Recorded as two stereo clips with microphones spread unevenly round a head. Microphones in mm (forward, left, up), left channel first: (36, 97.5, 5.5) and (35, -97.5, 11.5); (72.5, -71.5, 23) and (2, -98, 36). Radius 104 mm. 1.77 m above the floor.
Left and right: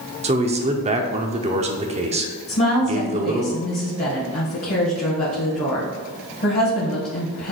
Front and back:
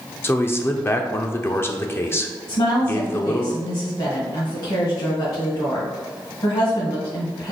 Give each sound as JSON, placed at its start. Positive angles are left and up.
{"t": 0.2, "sound": "a man speaking", "azimuth_deg": -45, "distance_m": 0.6}
{"t": 2.5, "sound": "a woman speaking", "azimuth_deg": 40, "distance_m": 1.7}